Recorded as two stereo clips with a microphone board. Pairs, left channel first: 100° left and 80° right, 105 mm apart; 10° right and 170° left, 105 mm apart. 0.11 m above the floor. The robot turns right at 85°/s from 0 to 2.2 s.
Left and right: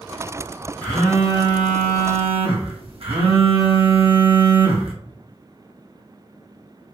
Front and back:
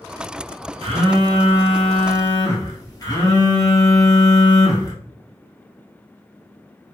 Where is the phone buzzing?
Straight behind, 1.1 m; by 4.9 s 65° right, 1.1 m.